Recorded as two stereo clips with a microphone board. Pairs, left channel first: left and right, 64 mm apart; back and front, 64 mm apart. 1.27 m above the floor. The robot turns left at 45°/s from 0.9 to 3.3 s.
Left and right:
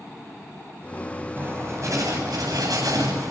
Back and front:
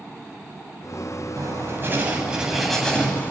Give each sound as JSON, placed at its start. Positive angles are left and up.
{"t": 1.4, "sound": "writing", "azimuth_deg": -35, "distance_m": 9.0}